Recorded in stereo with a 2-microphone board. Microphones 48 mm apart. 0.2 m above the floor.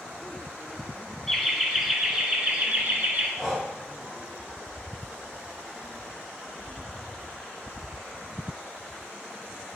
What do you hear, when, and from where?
1.3 s laughter: 5° left (ahead or behind), 1.4 m; by 3.3 s 40° right (ahead or behind), 1.3 m
3.4 s breathing: centre (ahead or behind), 2 m